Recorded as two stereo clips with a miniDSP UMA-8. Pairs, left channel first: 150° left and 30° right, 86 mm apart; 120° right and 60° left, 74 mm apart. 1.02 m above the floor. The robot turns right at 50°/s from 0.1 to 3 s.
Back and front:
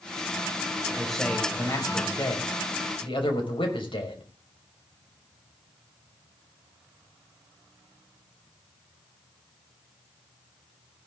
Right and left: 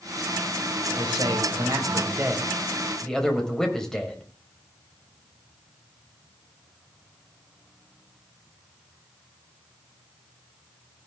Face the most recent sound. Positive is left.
turn(degrees=160)